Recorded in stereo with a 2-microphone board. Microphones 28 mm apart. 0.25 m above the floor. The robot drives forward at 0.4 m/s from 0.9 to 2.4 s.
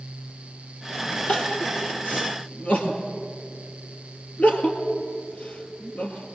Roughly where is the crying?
Left.